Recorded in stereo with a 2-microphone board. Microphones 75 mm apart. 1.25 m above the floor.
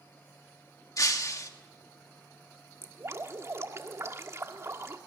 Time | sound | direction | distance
1.0 | breaking glass | 55° left (ahead or behind) | 1.5 m
2.8 | dripping | 40° right (ahead or behind) | 1.4 m